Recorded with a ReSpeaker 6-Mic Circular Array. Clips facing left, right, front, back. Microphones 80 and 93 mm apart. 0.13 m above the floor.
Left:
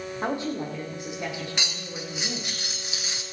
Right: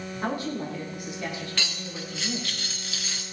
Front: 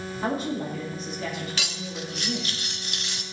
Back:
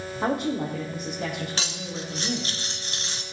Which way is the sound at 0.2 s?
155° left.